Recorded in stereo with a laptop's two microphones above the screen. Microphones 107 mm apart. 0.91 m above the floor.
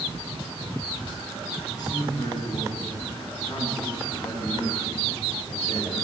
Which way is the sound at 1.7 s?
40° left (ahead or behind).